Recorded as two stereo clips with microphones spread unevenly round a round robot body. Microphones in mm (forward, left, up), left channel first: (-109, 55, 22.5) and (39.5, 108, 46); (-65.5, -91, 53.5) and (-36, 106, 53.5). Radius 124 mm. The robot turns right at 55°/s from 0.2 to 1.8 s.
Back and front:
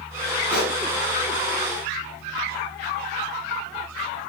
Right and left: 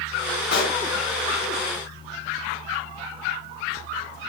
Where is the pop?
60° right, 4 m; by 0.8 s 45° right, 4 m.